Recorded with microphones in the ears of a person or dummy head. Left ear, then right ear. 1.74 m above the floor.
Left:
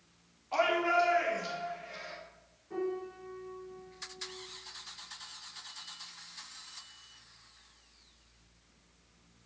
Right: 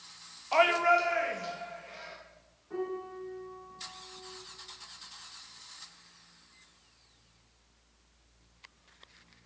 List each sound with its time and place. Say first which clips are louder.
0.5 s a shout: right 4 dB; 35° right (ahead or behind), 0.6 m; by 2.1 s 10° right (ahead or behind), 1.8 m
2.7 s a piano: even; 5° right (ahead or behind), 1.1 m